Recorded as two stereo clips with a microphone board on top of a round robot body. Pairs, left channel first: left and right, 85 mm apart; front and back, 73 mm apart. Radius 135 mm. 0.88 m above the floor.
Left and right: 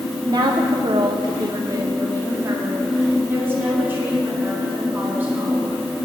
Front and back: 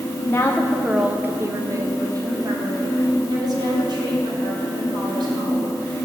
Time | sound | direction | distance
0.3 | a woman speaking | 55° right | 0.9 m